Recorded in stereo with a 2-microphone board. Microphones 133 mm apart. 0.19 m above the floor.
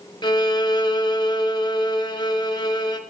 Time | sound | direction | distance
0.2 | a violin | 35° left (ahead or behind) | 0.6 m